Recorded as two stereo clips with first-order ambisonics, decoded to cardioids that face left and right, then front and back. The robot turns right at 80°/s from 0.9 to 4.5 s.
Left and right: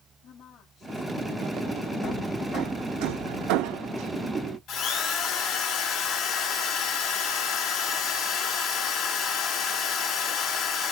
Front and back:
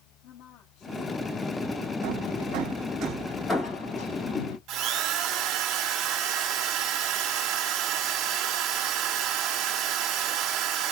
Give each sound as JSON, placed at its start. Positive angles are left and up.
{"t": 0.2, "sound": "a woman speaking", "azimuth_deg": 40, "distance_m": 3.5}
{"t": 2.0, "sound": "hammering", "azimuth_deg": 160, "distance_m": 4.5}
{"t": 4.7, "sound": "a drill", "azimuth_deg": 140, "distance_m": 3.0}